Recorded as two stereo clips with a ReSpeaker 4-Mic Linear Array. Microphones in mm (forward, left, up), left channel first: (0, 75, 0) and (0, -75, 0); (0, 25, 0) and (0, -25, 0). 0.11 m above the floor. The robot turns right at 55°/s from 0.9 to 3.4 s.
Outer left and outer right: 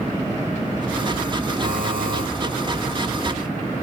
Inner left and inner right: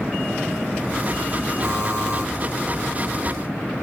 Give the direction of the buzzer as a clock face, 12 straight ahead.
4 o'clock.